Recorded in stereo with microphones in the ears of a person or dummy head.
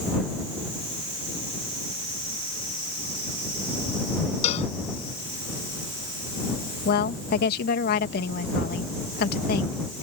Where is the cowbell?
40° left (ahead or behind).